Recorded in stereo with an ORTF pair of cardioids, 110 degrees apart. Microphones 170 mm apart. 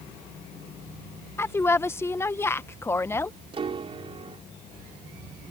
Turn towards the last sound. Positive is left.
turn(degrees=-35)